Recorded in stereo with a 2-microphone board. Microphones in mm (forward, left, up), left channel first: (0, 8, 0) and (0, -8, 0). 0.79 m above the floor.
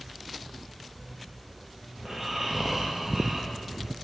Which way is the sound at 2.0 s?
35° right (ahead or behind).